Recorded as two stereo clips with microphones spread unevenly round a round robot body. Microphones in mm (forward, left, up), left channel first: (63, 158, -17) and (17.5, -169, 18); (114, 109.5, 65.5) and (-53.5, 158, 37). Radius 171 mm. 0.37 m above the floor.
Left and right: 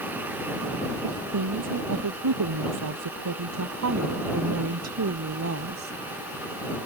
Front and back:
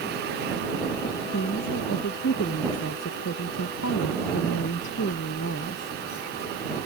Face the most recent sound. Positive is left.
turn(degrees=-50)